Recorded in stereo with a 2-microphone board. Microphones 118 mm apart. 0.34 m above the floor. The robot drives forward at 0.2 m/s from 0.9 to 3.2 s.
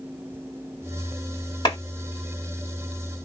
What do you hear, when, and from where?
1.6 s a clap: 40° left (ahead or behind), 2 m